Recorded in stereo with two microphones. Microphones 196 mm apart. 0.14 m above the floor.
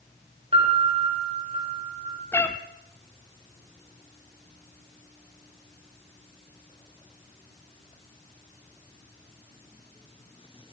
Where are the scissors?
No scissors in this recording.